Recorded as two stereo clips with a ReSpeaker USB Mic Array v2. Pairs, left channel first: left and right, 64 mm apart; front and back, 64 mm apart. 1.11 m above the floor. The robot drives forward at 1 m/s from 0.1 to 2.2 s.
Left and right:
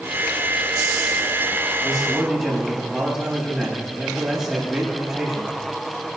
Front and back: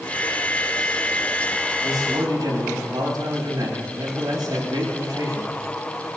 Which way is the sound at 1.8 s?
170° right.